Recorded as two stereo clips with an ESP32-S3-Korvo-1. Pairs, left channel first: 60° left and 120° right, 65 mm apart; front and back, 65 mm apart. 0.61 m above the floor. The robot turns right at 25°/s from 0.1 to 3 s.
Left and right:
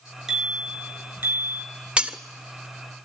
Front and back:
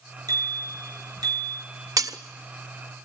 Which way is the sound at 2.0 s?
170° left.